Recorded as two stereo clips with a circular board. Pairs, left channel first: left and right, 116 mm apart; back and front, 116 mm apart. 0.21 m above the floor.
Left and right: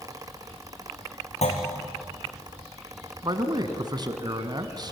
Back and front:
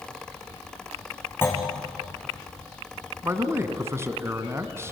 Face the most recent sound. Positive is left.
turn(degrees=-60)